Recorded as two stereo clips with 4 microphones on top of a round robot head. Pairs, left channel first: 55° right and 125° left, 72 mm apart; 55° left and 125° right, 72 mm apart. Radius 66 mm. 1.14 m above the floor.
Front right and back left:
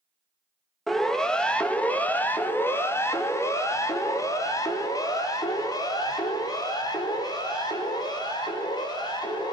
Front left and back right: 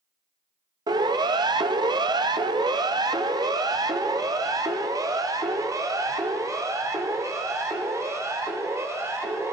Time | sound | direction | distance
0.9 | a siren | 140° right | 2 m